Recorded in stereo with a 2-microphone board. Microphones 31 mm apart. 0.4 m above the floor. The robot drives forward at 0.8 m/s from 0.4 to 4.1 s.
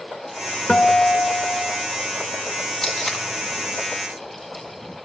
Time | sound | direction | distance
0.7 | a guitar | 30° left (ahead or behind) | 0.5 m
2.8 | tape being pulled | 10° left (ahead or behind) | 1.1 m